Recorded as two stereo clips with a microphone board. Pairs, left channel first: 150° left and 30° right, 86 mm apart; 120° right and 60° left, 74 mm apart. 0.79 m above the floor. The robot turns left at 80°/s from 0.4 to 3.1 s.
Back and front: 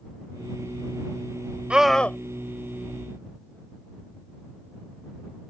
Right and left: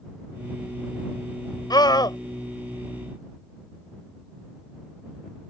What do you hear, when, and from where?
1.7 s a scream: 105° right; by 2.2 s 145° right